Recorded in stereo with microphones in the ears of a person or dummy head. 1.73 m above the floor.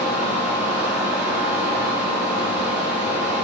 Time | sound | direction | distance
0.0 | a fan | 10° right (ahead or behind) | 3 m